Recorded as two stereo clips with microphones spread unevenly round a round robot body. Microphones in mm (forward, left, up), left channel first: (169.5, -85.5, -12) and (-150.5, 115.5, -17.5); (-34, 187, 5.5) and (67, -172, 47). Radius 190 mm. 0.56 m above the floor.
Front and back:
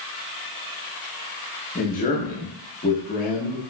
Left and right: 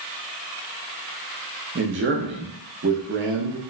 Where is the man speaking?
60° right, 0.6 m.